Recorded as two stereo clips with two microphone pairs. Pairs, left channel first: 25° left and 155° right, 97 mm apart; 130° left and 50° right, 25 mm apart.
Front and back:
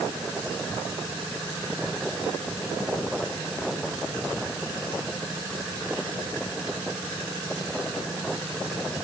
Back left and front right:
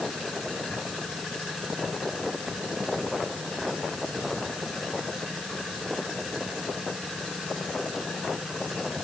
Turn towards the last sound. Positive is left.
No sound to turn to.